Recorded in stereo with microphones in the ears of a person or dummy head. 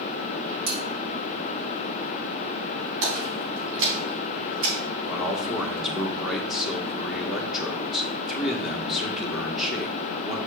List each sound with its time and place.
0.7 s cutlery clinking: 70° right (ahead or behind), 3.5 m
3.0 s a splash: 65° right (ahead or behind), 4 m
5.0 s a man speaking: 5° left (ahead or behind), 1.4 m